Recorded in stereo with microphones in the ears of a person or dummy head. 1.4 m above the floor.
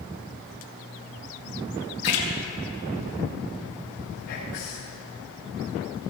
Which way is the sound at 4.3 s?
55° left (ahead or behind).